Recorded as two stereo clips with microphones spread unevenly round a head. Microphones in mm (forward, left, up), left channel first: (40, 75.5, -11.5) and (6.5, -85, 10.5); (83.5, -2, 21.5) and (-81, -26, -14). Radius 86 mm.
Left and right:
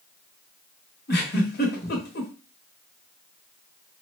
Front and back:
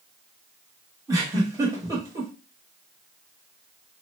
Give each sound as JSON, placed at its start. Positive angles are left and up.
{"t": 1.1, "sound": "a giggle", "azimuth_deg": 110, "distance_m": 1.2}